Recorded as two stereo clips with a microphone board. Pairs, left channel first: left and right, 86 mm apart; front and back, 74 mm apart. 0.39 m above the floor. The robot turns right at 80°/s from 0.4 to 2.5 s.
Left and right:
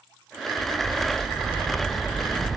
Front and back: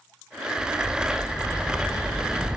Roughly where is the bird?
Ahead right.